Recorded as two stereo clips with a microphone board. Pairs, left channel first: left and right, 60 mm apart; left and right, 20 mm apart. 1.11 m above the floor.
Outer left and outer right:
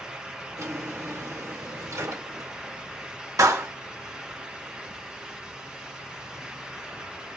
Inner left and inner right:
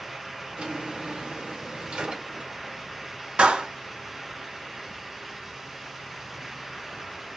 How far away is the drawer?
About 2.5 m.